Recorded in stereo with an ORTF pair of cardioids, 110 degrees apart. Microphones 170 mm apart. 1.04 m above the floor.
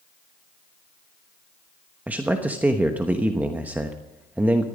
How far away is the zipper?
No zipper in this recording.